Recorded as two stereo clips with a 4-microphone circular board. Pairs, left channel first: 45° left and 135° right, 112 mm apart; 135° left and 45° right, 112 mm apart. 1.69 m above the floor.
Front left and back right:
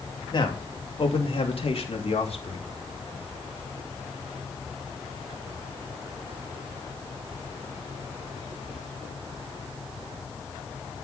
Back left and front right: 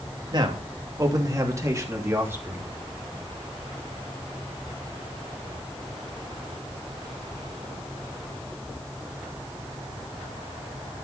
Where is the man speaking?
Straight ahead, 2.5 m; by 2.7 s 25° left, 3 m.